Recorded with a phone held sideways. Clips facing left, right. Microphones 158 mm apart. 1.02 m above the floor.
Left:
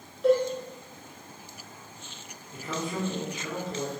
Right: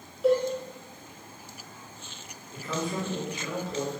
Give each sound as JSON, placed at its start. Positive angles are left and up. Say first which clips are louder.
{"t": 0.2, "sound": "a cowbell", "louder": "left 1 dB", "side_deg": -5, "distance_m": 0.7}
{"t": 2.5, "sound": "a man speaking", "louder": "right 1 dB", "side_deg": 20, "distance_m": 1.0}